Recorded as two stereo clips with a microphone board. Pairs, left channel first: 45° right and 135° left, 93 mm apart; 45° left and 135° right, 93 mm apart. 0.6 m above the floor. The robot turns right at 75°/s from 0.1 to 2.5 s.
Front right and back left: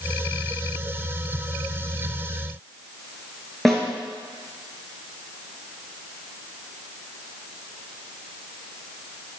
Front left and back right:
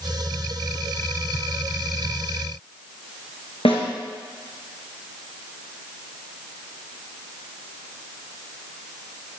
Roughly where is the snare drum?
Ahead left.